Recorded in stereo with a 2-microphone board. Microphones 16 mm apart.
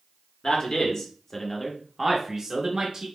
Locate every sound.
0.4 s a man speaking: 45° left (ahead or behind), 0.9 m; by 3.1 s 50° right (ahead or behind), 0.9 m